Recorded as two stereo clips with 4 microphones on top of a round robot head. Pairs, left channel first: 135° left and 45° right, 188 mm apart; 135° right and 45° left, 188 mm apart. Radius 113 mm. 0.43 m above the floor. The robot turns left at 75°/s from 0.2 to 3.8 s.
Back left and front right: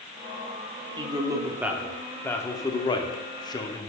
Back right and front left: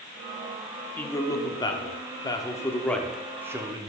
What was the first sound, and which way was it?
A man speaking, 65° right.